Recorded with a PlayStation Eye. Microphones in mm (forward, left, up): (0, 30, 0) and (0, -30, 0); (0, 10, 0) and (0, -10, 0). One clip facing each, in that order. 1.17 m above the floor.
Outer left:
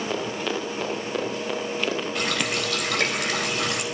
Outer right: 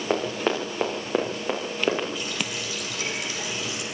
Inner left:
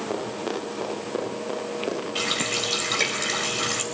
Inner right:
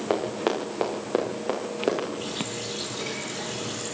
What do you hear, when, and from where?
0.1 s running footsteps: 40° right (ahead or behind), 8.5 m; by 2.0 s 30° right (ahead or behind), 7.5 m
2.1 s a running tap: 70° left (ahead or behind), 4.5 m